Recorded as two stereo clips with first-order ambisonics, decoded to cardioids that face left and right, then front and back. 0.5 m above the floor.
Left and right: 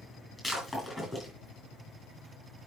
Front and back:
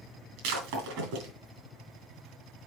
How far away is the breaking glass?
About 3.5 m.